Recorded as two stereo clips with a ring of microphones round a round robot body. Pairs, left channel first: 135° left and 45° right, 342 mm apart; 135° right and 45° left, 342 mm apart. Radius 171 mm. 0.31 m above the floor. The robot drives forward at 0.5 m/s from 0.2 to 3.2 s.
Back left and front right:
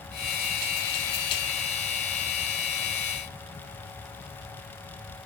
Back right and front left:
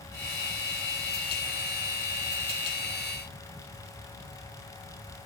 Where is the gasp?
No gasp in this recording.